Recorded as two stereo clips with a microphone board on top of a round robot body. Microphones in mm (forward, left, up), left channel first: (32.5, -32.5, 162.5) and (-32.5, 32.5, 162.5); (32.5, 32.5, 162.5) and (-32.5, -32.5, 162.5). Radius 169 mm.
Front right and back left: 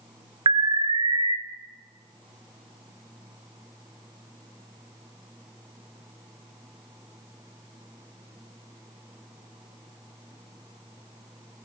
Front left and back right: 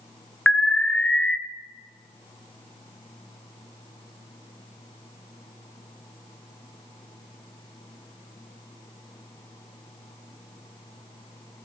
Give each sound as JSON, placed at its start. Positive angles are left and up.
{"t": 0.5, "sound": "an alarm", "azimuth_deg": 125, "distance_m": 0.9}